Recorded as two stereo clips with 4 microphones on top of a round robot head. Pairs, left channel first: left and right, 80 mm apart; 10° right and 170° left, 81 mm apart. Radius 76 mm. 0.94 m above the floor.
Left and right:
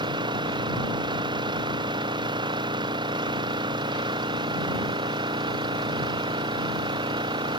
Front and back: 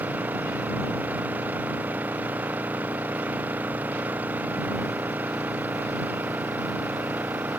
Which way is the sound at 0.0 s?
115° right.